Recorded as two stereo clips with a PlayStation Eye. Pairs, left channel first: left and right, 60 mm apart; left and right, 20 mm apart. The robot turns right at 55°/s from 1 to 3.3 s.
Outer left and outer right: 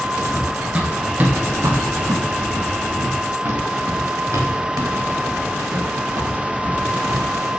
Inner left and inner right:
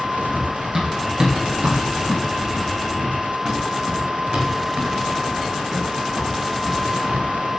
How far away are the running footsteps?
About 6 m.